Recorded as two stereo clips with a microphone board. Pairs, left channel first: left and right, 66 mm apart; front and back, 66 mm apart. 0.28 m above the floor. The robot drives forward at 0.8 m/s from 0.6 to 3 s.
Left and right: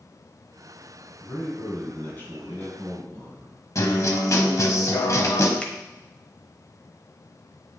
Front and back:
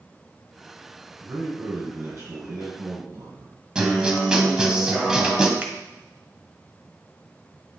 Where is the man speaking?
135° left, 2.5 m; by 3.5 s 155° left, 3.5 m.